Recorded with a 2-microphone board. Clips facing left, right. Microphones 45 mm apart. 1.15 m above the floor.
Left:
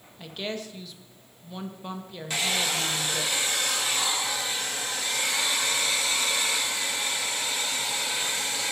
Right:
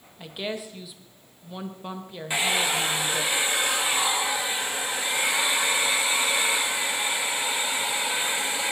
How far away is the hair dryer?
About 1.1 m.